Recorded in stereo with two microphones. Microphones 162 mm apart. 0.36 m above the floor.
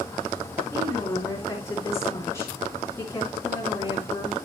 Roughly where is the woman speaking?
Centre.